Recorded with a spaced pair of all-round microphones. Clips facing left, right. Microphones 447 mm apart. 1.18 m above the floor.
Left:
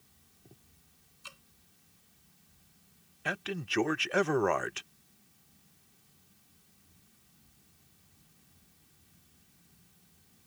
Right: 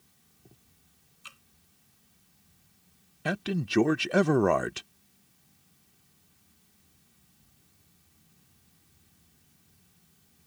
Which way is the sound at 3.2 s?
60° right (ahead or behind).